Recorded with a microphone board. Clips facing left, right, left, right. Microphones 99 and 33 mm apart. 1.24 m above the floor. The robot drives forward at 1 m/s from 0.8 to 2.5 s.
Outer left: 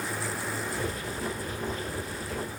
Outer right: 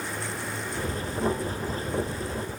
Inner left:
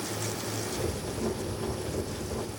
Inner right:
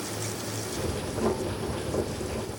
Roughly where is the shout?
I don't hear a shout.